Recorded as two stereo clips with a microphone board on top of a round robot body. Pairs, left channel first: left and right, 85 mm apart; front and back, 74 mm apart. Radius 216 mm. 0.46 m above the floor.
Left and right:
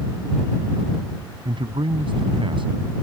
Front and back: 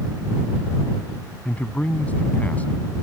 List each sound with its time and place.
1.4 s a man speaking: 70° right